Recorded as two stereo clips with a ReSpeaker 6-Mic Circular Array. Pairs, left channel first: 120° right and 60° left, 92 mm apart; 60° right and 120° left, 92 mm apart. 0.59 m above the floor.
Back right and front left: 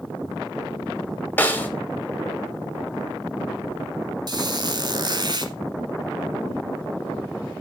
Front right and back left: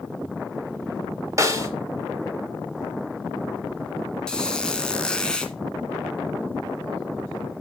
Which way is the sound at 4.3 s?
20° left.